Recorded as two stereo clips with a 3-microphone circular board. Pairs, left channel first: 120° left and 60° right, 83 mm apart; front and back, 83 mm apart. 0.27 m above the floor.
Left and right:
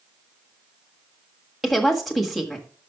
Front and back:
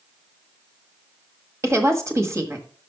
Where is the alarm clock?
No alarm clock in this recording.